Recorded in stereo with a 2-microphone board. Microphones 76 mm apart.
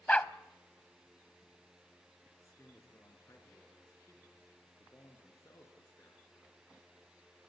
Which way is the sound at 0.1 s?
15° left (ahead or behind).